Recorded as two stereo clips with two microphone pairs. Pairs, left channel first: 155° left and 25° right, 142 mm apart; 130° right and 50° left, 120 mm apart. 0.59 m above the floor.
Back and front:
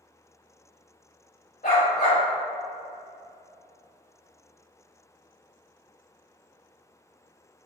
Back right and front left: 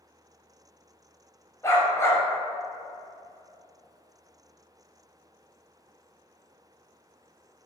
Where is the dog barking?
165° left, 1.2 m.